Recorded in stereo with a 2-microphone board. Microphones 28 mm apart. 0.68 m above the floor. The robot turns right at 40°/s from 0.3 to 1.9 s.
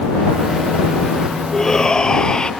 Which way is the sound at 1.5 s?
15° left (ahead or behind).